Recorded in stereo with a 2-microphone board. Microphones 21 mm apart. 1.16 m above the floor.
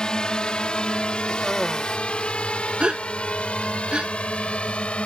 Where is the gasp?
70° right (ahead or behind).